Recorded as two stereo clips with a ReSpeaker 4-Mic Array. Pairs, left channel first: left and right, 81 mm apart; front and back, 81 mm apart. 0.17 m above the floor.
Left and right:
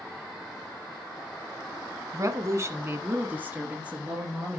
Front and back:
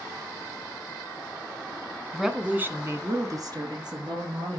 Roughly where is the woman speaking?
Right.